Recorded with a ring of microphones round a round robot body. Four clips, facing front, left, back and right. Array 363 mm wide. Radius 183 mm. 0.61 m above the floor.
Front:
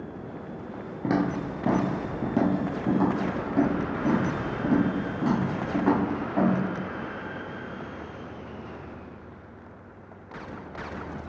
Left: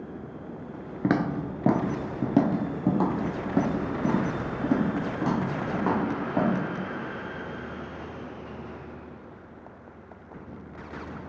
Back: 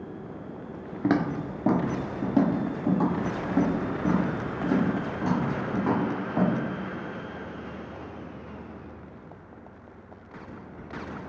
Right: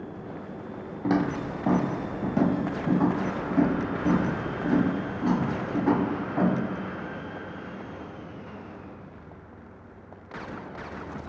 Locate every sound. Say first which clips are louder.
1.0 s footsteps: even, back 1 dB; 115° left, 0.6 m; by 6.5 s 85° left, 3 m